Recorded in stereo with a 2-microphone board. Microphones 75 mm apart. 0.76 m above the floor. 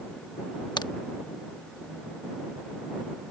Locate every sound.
0.8 s a crack: 65° left (ahead or behind)